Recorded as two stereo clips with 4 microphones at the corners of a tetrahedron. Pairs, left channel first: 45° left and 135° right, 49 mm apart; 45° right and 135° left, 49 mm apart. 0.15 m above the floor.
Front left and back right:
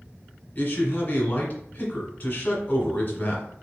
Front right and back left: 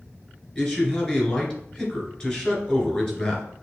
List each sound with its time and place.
0.6 s a man speaking: 10° left, 1.9 m